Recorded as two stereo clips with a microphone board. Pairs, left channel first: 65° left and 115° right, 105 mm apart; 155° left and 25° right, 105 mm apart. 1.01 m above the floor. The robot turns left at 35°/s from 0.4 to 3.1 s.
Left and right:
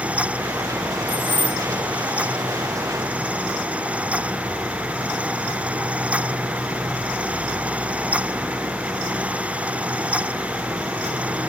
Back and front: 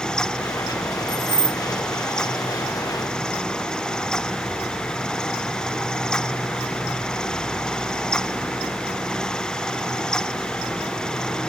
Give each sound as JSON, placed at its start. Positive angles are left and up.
{"t": 1.1, "sound": "keys jangling", "azimuth_deg": -165, "distance_m": 1.6}